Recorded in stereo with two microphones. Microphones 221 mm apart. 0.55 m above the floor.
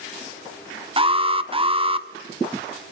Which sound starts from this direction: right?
An alarm, at 1.0 s.